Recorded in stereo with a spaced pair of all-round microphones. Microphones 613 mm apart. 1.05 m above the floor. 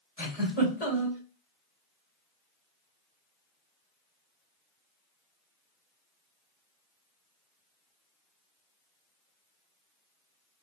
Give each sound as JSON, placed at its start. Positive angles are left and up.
{"t": 0.2, "sound": "a giggle", "side_deg": 80, "distance_m": 3.0}